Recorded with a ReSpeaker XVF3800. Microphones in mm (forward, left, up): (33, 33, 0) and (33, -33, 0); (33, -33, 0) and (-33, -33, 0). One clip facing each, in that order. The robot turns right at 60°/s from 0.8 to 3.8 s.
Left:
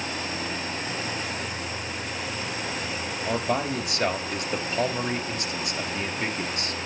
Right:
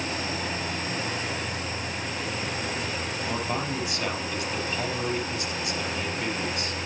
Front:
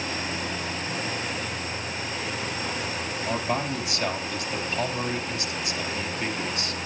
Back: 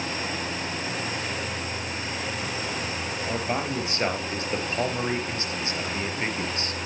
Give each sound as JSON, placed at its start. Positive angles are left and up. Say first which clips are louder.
{"t": 3.2, "sound": "a man speaking", "louder": "left 5 dB, front 1 dB", "azimuth_deg": 90, "distance_m": 3.5}